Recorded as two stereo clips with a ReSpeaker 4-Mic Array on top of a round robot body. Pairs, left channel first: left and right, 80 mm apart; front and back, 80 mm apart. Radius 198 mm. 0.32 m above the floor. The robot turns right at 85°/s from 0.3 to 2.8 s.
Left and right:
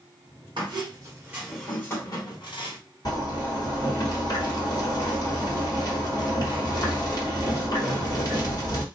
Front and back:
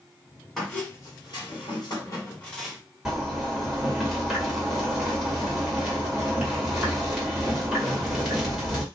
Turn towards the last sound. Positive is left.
turn(degrees=100)